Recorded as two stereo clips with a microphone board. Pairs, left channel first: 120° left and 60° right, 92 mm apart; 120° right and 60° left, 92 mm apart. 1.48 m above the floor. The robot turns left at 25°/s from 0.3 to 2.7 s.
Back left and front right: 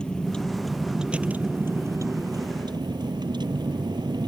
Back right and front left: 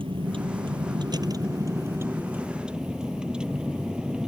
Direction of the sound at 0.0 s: 40° left.